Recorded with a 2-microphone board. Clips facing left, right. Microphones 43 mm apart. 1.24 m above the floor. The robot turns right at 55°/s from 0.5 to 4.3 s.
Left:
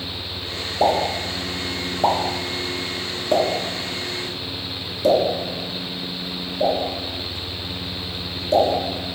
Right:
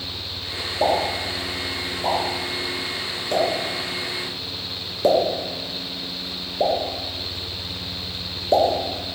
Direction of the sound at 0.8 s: 20° left (ahead or behind).